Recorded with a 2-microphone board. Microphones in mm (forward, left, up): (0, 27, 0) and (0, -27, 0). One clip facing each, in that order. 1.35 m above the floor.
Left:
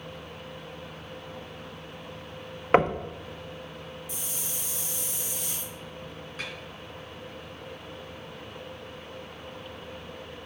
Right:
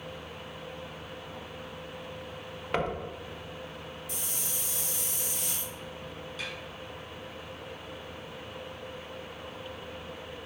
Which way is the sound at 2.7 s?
45° left (ahead or behind).